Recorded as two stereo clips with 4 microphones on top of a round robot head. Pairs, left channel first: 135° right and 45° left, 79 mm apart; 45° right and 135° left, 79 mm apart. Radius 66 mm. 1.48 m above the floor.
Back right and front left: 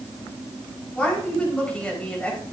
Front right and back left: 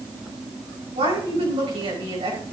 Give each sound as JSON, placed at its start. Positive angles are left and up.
{"t": 0.9, "sound": "a woman speaking", "azimuth_deg": 150, "distance_m": 5.0}